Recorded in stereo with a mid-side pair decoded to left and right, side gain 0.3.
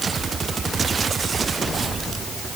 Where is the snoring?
No snoring in this recording.